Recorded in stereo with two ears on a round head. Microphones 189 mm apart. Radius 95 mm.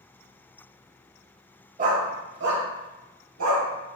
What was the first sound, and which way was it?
A dog barking, 40° right (ahead or behind).